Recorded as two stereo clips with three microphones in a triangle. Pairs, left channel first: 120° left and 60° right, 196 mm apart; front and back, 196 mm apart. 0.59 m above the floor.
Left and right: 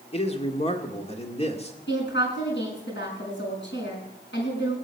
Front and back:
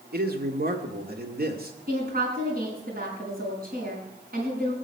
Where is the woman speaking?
140° left, 5.5 m.